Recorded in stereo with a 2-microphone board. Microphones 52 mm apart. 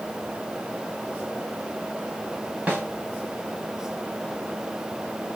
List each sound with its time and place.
2.7 s a snare drum: 25° right (ahead or behind), 1.4 m